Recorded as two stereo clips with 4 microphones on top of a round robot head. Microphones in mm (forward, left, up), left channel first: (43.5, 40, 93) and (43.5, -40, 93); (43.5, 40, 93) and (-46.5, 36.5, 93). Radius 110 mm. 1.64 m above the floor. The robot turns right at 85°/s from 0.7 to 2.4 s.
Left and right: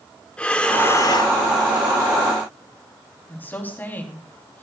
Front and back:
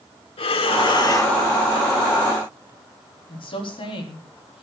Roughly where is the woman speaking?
Ahead left.